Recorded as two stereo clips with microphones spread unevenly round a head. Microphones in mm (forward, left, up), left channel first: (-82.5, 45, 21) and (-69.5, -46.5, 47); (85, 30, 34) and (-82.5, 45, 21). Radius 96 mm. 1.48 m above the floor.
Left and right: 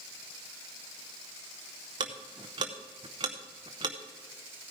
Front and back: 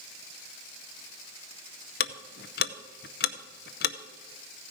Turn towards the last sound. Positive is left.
turn(degrees=-35)